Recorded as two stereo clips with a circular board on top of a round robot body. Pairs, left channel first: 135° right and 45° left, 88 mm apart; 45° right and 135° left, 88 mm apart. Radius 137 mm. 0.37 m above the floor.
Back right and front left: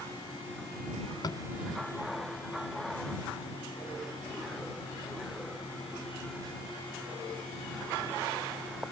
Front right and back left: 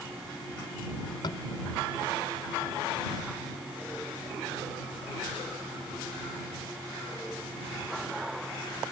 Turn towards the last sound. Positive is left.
turn(degrees=-90)